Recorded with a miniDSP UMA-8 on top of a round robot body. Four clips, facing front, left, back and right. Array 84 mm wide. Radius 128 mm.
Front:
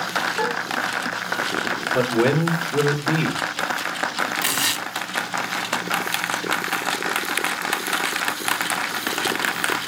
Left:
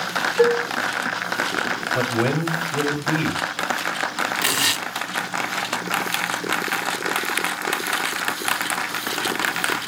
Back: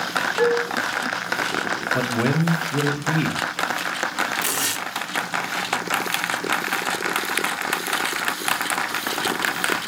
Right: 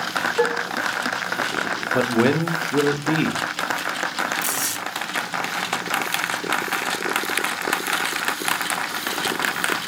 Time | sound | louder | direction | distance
0.4 | dishes clattering | left 5 dB, back 9 dB | 100° right | 3.5 m
1.9 | a man speaking | right 4 dB, front 4 dB | 75° right | 1.7 m
4.4 | tearing paper | left 3 dB, front 1 dB | 70° left | 1.0 m